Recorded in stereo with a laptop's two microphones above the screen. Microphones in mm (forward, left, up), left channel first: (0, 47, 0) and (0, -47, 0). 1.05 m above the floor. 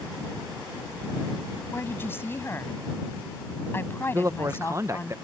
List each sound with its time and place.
1.7 s a woman speaking: 25° left (ahead or behind)
4.1 s a man speaking: 35° right (ahead or behind)